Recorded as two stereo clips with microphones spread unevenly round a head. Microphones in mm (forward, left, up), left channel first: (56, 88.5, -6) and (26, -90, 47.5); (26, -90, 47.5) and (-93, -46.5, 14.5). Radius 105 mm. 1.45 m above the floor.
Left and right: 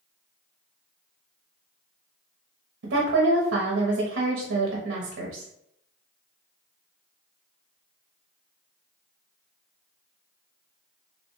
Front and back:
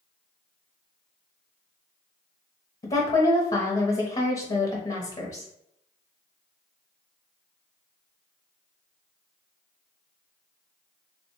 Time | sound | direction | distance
2.8 | a woman speaking | 70° right | 0.8 m